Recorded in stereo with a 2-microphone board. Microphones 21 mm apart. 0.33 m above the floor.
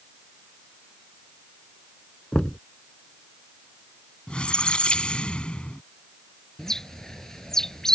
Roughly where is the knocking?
Left.